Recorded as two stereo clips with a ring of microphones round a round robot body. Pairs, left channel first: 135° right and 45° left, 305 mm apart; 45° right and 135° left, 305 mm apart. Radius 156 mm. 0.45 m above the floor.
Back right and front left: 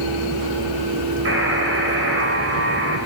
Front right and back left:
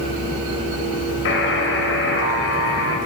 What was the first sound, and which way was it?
A buzzer, straight ahead.